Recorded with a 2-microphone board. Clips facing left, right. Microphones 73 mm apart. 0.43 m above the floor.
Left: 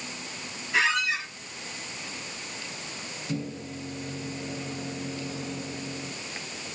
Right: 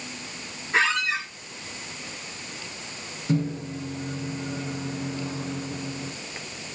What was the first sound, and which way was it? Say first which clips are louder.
A squeak: right 2 dB; 35° right (ahead or behind).